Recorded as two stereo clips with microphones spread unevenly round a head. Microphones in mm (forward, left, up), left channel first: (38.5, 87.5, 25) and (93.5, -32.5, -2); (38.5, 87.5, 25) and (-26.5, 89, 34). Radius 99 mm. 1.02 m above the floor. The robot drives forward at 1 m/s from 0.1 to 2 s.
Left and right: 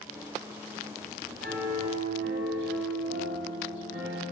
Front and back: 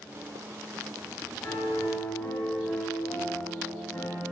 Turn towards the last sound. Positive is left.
turn(degrees=-85)